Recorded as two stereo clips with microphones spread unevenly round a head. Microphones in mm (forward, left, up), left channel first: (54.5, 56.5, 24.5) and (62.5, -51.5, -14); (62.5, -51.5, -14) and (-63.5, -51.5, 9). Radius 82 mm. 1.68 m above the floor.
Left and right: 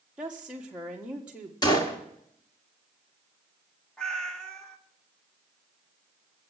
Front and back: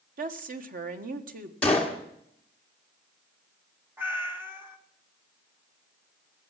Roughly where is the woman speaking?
Behind.